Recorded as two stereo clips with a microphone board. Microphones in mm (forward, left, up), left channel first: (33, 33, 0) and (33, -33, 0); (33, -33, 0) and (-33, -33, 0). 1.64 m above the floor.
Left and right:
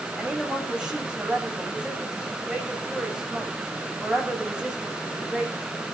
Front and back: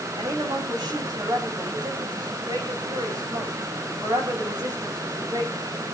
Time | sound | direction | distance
0.2 | a woman speaking | 165° right | 8 m